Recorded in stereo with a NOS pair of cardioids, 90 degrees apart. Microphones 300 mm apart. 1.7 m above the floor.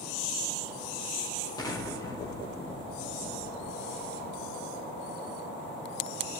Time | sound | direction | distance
1.6 | an explosion | 10° left | 1.7 m